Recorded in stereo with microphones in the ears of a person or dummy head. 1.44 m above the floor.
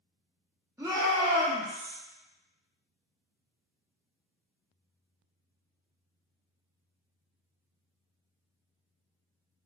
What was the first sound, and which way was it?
A shout, 5° right (ahead or behind).